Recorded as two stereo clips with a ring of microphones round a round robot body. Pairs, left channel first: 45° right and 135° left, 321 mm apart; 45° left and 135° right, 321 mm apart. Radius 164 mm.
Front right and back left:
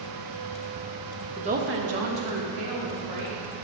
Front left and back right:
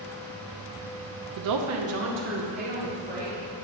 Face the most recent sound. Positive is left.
turn(degrees=160)